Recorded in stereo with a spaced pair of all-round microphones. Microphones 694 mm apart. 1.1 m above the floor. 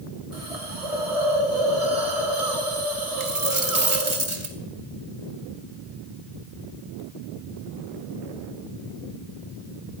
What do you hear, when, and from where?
0.3 s a hiss: 55° right (ahead or behind), 2.5 m
3.2 s a dropped coin: 40° right (ahead or behind), 1.9 m